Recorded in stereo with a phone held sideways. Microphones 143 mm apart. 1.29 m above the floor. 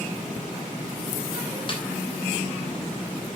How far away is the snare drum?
About 3 m.